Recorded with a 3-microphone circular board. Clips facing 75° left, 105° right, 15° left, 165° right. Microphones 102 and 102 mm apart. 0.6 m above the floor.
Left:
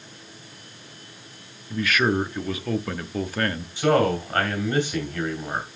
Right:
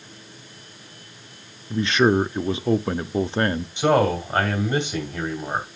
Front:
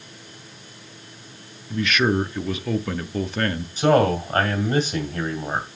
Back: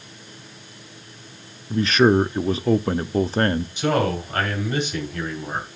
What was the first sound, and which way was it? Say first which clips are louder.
A man speaking: right 4 dB, back 5 dB; 145° right.